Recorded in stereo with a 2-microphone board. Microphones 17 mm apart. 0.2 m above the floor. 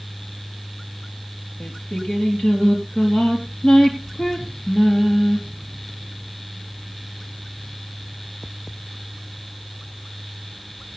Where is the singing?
60° left (ahead or behind), 4 m.